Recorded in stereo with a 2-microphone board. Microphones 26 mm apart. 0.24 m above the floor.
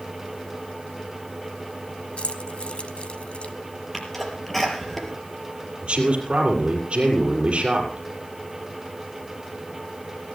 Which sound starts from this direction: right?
A man speaking, at 5.8 s.